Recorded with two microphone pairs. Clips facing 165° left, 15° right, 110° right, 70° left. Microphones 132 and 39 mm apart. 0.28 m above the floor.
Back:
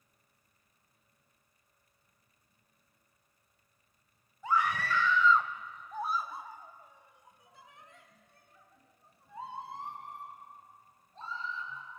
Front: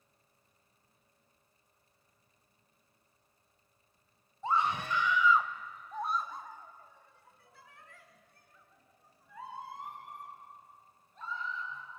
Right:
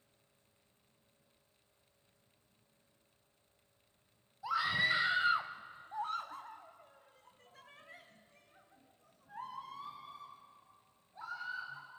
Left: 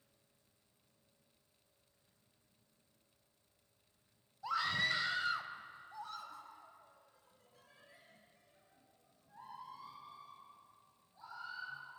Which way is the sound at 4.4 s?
30° right.